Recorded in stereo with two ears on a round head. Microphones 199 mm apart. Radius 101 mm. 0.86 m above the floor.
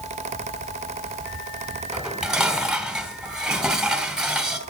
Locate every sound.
1.9 s dishes clattering: 5° right (ahead or behind), 3 m